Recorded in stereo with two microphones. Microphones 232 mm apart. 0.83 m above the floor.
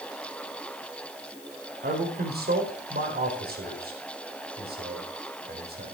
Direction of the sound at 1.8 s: 45° right (ahead or behind).